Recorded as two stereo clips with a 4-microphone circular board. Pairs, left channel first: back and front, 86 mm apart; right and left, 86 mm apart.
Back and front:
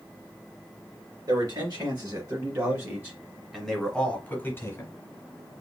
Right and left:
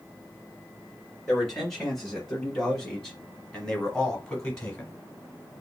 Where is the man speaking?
Straight ahead, 2.0 m; by 4.9 s 165° right, 1.4 m.